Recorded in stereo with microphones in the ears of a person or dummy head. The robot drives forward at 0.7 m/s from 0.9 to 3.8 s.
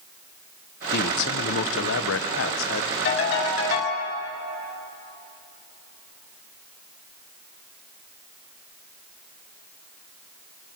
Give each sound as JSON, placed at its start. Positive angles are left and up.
{"t": 0.9, "sound": "a man speaking", "side_deg": 50, "distance_m": 1.3}
{"t": 3.0, "sound": "a ringtone", "side_deg": 65, "distance_m": 6.5}